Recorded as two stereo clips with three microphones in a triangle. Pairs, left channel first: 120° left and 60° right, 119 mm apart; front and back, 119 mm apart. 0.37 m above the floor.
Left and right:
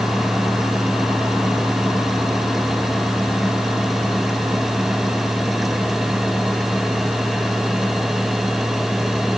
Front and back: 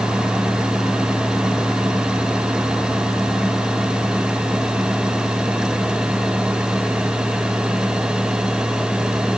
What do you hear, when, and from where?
Only background noise.